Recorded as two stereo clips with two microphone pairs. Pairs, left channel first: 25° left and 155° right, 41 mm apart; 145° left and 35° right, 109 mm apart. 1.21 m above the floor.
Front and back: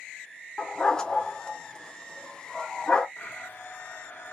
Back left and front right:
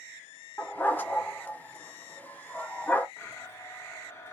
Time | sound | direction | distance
0.6 | a dog barking | 85° left | 0.8 m
3.2 | a blender | 75° left | 1.1 m